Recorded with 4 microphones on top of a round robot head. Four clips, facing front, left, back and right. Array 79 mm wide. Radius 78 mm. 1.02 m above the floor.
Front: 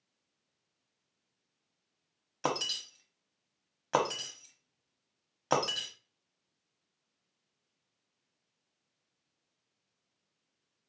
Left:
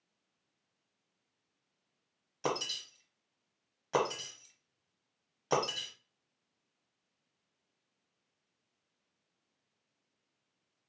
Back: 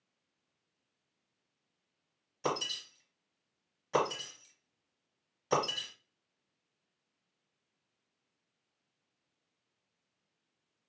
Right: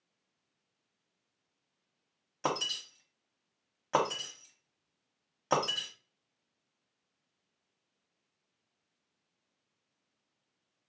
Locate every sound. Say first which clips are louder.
2.4 s breaking glass: right 2 dB, front 1 dB; 20° right, 0.9 m